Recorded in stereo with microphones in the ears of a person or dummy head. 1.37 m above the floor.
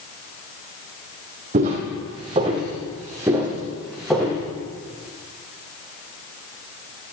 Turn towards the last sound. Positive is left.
turn(degrees=0)  # may be behind; listen again after turning